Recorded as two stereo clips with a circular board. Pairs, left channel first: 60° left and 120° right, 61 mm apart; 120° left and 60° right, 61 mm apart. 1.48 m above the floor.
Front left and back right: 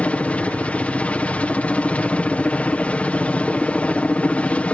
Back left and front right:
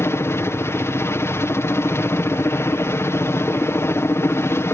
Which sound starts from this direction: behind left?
A helicopter, at 0.0 s.